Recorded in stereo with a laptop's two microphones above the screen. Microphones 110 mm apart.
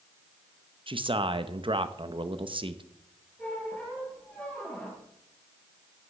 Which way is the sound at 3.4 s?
10° left (ahead or behind).